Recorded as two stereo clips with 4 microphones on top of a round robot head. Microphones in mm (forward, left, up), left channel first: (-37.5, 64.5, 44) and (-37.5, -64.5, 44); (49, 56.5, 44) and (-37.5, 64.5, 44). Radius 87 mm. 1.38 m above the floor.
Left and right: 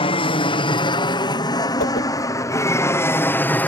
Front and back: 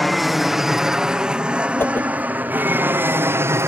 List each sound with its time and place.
0.0 s an aircraft: 85° left; by 3.7 s 155° left
1.8 s a whoosh: 60° left